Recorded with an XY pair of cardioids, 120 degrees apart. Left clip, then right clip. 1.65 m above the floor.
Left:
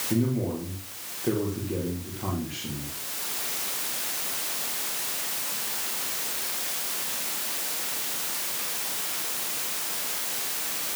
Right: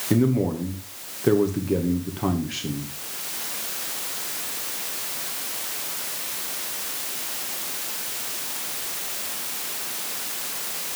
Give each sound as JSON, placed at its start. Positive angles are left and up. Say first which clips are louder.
{"t": 0.1, "sound": "a man speaking", "louder": "right 7 dB", "azimuth_deg": -45, "distance_m": 2.0}